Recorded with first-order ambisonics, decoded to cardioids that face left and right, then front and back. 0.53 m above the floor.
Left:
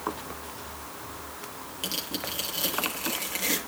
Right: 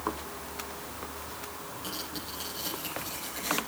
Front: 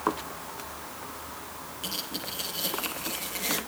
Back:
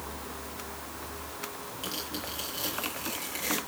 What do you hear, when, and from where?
1.8 s tearing paper: 90° left, 7.5 m